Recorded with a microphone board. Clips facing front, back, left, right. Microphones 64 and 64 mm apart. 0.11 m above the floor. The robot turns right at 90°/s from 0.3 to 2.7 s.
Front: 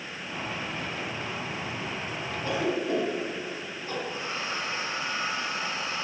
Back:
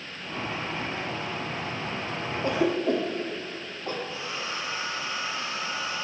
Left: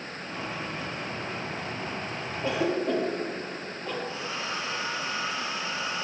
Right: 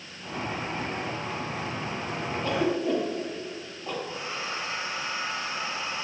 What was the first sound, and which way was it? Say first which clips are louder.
A cough: back 4 dB, even; 160° left.